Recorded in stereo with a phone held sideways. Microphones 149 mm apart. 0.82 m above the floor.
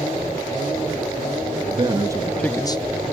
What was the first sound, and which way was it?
A man speaking, 35° right (ahead or behind).